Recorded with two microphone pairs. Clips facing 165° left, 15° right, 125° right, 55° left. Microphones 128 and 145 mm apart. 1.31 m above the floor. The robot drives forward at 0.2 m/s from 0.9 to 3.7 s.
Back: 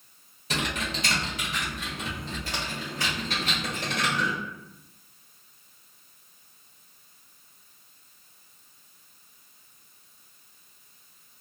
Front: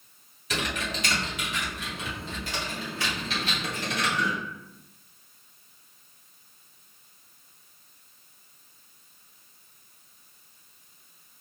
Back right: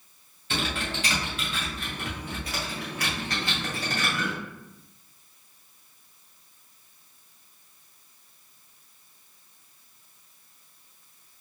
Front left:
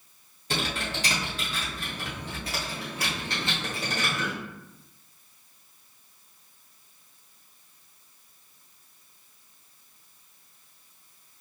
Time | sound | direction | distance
0.5 | typing on a keyboard | 105° left | 1.9 m